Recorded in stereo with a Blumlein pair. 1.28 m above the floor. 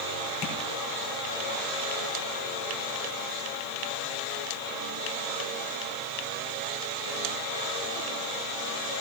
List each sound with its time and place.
0.4 s tapping: 40° left, 4.5 m